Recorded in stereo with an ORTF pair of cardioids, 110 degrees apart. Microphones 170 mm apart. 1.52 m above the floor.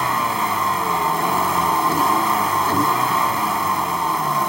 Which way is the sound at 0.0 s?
Straight ahead.